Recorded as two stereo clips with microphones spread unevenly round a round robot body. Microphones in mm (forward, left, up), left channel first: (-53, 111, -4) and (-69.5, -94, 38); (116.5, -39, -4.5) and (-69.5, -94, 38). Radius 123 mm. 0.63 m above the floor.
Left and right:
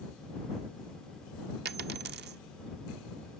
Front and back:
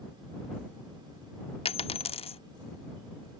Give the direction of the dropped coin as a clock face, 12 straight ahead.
1 o'clock.